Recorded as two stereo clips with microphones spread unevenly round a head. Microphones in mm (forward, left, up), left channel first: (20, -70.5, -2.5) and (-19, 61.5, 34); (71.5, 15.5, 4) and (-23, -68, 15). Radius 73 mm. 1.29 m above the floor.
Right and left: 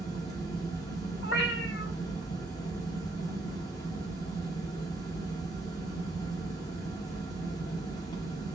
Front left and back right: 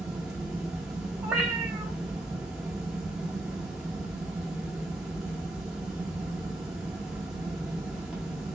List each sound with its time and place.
0.0 s a fan: 50° right, 1.1 m
1.2 s a cat meowing: 60° right, 1.5 m